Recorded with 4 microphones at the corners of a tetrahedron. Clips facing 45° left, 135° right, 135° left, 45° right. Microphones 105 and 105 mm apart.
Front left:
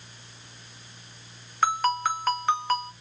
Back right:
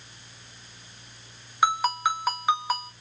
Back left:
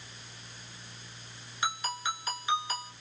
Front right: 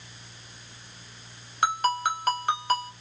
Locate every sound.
1.6 s a ringtone: 55° right, 1.1 m